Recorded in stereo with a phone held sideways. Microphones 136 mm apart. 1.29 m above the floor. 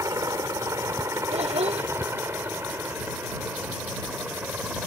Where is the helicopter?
25° right (ahead or behind); by 4.9 s 10° right (ahead or behind).